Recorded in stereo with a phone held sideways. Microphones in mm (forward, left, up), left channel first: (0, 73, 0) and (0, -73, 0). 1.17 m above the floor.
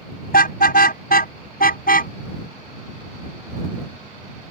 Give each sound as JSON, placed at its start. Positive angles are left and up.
{"t": 0.3, "sound": "a car horn", "side_deg": 85}